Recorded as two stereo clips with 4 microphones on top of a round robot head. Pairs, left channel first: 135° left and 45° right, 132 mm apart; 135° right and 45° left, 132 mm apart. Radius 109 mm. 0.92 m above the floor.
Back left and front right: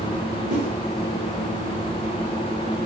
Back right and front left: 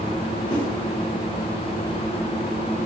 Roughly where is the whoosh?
Right.